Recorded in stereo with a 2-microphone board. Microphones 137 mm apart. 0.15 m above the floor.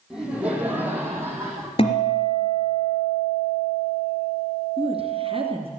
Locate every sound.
0.1 s laughter: 5° right (ahead or behind), 5 m; by 1.7 s 20° right (ahead or behind), 6.5 m
1.8 s a guitar: 45° left (ahead or behind), 3 m
4.8 s a woman speaking: 45° right (ahead or behind), 2.5 m